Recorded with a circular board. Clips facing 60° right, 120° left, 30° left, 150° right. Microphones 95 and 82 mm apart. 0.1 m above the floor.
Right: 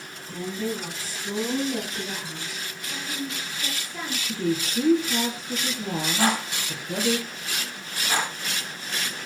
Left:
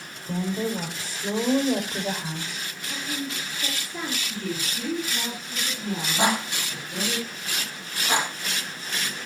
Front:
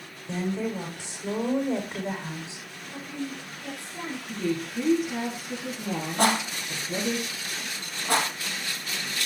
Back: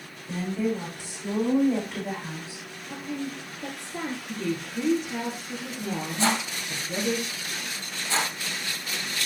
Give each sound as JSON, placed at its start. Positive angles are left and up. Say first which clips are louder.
{"t": 0.3, "sound": "a woman speaking", "louder": "left 3 dB, back 1 dB", "azimuth_deg": 100, "distance_m": 8.0}
{"t": 2.9, "sound": "a woman speaking", "louder": "left 1 dB, back 2 dB", "azimuth_deg": -170, "distance_m": 2.0}
{"t": 4.3, "sound": "a woman speaking", "louder": "right 6 dB, front 4 dB", "azimuth_deg": -55, "distance_m": 5.0}
{"t": 6.2, "sound": "a rattle", "louder": "left 1 dB, front 3 dB", "azimuth_deg": 55, "distance_m": 3.5}